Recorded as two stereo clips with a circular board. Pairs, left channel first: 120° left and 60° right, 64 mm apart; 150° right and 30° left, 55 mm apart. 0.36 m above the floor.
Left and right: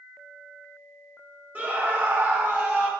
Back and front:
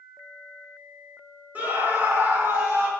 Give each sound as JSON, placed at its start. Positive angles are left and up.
{"t": 1.6, "sound": "a scream", "azimuth_deg": -10, "distance_m": 1.3}